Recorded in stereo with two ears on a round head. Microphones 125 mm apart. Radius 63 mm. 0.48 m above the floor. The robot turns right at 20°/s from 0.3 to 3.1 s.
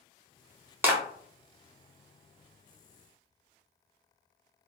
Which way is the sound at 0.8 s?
15° right (ahead or behind).